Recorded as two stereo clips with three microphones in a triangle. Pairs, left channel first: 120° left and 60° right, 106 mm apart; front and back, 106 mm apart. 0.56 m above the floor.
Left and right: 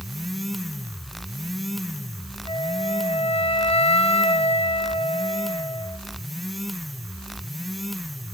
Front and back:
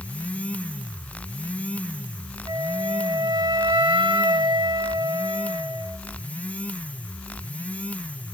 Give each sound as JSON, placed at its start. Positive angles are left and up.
{"t": 2.5, "sound": "a flute", "azimuth_deg": 145, "distance_m": 1.2}